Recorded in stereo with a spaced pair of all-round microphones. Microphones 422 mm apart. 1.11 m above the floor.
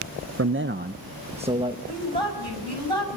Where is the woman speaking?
90° right, 6 m.